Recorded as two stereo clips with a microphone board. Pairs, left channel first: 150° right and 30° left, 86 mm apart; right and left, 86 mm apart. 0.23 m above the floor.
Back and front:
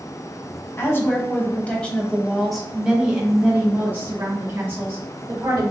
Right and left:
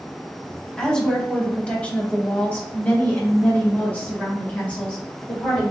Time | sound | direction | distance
0.8 | a woman speaking | 165° right | 1.4 m